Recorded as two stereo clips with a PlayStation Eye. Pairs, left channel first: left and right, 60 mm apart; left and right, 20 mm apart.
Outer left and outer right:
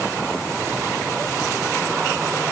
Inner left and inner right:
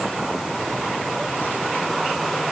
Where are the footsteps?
No footsteps in this recording.